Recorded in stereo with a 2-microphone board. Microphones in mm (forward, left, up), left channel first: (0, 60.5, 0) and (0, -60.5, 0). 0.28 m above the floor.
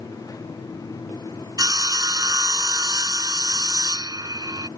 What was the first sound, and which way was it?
Sawing, 30° right (ahead or behind).